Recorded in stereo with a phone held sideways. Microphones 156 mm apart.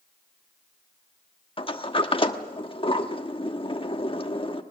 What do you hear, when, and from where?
1.6 s a sliding door: 35° left (ahead or behind), 1.1 m